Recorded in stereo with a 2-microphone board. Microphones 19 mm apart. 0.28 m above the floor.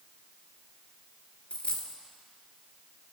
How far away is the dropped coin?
About 1.8 m.